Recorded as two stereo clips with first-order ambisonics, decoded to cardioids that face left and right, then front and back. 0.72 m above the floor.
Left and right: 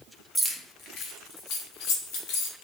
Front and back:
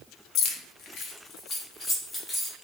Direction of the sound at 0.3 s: 15° right.